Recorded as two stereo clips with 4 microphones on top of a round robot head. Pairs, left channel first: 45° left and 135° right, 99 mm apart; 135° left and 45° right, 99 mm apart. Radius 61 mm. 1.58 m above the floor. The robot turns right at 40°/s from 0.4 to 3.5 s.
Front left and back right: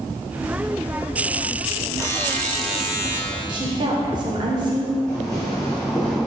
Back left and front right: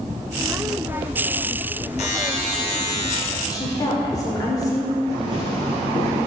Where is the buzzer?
110° left, 1.0 m; by 3.2 s 160° left, 1.0 m.